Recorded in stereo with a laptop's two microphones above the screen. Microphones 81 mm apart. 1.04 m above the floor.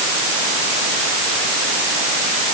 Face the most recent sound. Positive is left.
No sound to turn to.